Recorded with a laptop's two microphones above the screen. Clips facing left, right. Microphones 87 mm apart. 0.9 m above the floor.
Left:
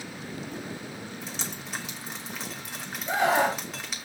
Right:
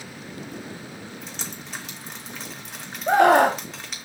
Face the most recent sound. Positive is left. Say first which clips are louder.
# right 8 dB
turn(degrees=-60)  # may be behind; listen again after turning